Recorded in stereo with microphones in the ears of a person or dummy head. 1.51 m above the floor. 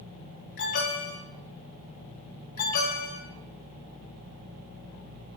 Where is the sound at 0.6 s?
60° left (ahead or behind), 3 m.